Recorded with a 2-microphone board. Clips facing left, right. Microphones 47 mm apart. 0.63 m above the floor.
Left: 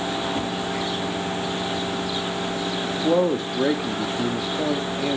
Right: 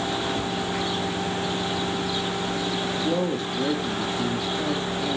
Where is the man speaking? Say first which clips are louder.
Left 7 dB; 40° left (ahead or behind), 1.0 m.